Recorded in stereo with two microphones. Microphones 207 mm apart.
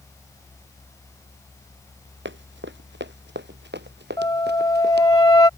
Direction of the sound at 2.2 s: 65° right (ahead or behind).